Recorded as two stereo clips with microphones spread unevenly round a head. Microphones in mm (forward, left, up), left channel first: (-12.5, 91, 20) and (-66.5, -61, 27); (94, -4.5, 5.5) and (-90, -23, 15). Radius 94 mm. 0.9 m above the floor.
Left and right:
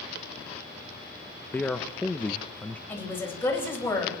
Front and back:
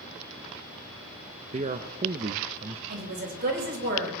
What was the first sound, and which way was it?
A man speaking, 145° left.